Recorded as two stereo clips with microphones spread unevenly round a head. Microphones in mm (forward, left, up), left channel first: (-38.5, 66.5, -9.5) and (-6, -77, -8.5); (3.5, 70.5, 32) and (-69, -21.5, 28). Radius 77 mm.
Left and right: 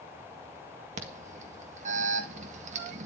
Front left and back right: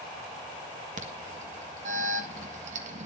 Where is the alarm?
115° right, 1.6 m.